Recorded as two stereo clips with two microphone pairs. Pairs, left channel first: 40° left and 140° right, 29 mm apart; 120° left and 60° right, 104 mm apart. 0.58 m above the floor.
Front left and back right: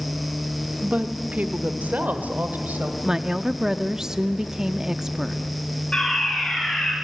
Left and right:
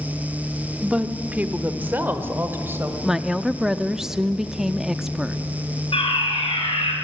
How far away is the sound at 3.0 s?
About 0.7 m.